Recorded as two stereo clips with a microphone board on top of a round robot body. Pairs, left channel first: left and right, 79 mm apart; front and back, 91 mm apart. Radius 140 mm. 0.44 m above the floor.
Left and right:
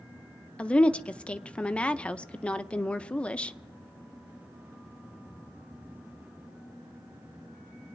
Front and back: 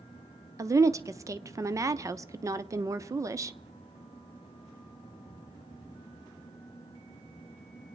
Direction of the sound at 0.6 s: 155° left.